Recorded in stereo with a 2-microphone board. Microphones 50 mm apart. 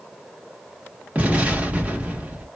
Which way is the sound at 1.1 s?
25° right (ahead or behind).